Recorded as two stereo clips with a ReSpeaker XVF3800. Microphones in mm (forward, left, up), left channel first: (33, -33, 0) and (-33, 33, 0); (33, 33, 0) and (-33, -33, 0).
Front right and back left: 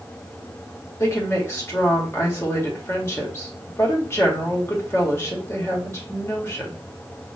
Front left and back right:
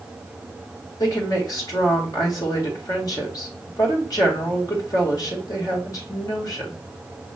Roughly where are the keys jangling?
I don't hear keys jangling.